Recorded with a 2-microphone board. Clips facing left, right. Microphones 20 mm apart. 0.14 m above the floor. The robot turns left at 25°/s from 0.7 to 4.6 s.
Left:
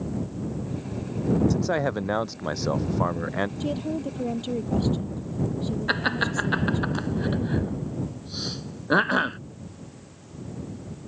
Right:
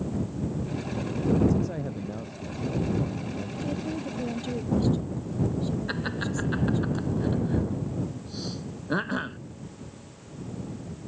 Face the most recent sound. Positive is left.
turn(degrees=35)  # may be behind; listen again after turning